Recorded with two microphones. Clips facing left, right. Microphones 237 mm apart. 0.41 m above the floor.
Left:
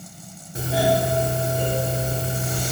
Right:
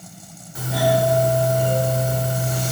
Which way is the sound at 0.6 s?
35° left (ahead or behind).